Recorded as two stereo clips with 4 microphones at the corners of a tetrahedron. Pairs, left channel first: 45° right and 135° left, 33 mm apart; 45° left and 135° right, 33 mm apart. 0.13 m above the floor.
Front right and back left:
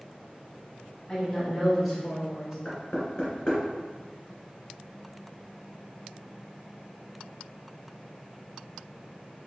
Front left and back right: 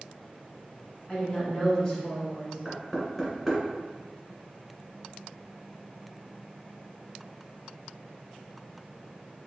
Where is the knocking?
40° right, 1.5 m.